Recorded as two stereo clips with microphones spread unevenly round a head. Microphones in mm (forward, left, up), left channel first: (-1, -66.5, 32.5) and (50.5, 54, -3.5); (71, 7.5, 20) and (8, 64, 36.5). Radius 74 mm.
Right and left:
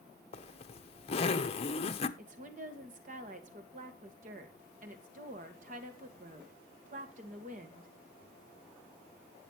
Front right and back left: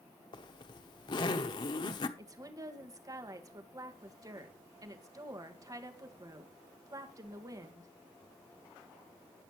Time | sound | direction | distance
0.3 | a zipper | 65° right | 1.0 m
2.2 | a woman speaking | 90° left | 1.9 m